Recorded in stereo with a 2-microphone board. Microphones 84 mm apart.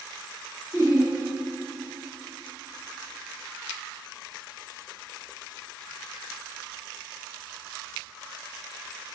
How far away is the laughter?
About 1.6 m.